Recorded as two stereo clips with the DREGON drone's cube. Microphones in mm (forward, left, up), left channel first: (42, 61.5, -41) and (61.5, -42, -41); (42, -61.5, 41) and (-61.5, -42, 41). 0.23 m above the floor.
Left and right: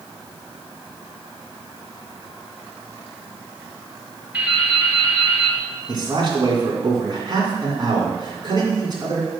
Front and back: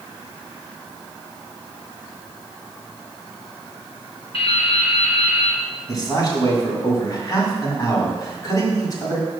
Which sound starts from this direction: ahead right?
A man speaking, at 5.9 s.